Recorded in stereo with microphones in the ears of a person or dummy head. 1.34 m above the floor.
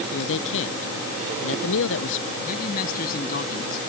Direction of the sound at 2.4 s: 55° left (ahead or behind).